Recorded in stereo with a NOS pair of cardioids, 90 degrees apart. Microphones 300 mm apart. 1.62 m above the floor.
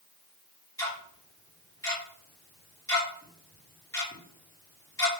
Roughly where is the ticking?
Ahead.